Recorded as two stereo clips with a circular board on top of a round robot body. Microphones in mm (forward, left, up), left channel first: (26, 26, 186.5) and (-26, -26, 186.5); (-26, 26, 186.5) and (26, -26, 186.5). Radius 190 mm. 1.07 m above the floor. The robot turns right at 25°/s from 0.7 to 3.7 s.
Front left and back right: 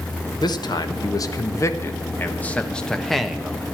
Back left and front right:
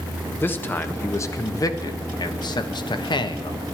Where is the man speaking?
75° left, 1.5 m; by 3.6 s 145° left, 1.5 m.